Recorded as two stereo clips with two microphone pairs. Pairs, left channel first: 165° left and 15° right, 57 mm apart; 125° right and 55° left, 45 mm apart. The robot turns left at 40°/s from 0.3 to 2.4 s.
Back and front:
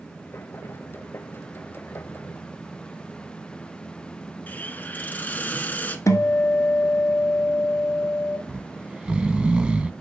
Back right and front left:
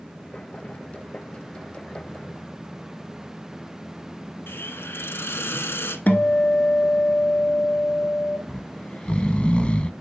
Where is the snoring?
70° right, 0.5 m.